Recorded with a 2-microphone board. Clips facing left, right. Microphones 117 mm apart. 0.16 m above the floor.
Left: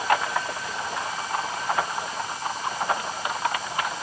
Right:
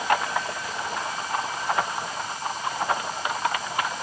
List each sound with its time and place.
Only background noise.